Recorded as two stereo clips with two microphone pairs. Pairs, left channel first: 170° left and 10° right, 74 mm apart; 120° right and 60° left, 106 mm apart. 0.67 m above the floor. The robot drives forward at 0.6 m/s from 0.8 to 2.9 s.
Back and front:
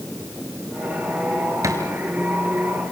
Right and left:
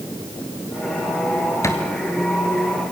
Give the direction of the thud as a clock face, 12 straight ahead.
2 o'clock.